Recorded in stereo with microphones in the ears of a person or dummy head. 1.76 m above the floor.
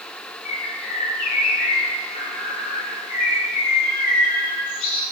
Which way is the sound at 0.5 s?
45° left (ahead or behind).